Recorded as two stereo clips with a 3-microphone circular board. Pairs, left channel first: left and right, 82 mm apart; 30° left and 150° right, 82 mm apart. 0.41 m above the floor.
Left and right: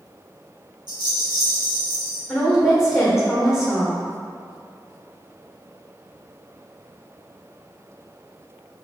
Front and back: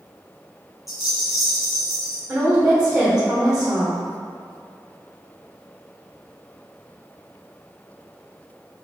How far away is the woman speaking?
About 1.4 m.